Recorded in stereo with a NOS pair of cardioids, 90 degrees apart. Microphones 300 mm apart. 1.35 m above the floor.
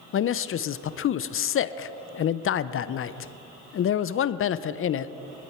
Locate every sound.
0.1 s a man speaking: 45° left, 0.6 m